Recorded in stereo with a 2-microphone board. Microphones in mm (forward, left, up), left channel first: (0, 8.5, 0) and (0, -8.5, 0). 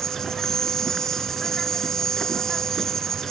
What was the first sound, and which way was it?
An insect, 30° left (ahead or behind).